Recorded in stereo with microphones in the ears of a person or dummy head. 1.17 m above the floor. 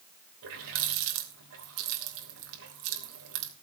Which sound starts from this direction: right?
A running tap, at 0.4 s.